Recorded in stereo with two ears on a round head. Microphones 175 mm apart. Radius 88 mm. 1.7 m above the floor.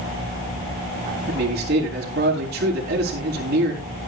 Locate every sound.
1.3 s a man speaking: 55° right (ahead or behind), 4.5 m